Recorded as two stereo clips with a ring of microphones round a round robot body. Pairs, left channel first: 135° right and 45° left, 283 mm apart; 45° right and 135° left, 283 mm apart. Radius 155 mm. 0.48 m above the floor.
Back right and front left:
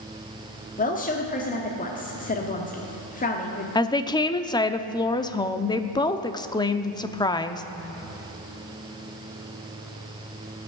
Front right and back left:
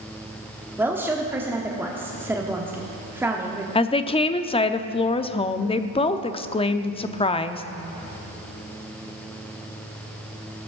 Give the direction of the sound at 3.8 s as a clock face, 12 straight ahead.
3 o'clock.